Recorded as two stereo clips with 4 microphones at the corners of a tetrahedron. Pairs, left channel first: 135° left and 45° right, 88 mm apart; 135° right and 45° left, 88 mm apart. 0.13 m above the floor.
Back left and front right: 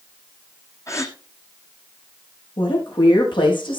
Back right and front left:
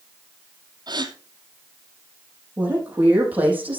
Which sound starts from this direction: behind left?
A woman speaking, at 2.6 s.